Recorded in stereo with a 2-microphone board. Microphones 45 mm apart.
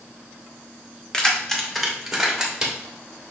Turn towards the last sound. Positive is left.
turn(degrees=-15)  # may be behind; listen again after turning